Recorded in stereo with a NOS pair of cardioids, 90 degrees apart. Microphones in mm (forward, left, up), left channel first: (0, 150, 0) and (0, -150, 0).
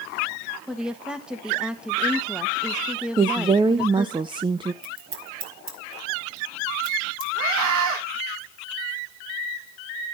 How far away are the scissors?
About 3 m.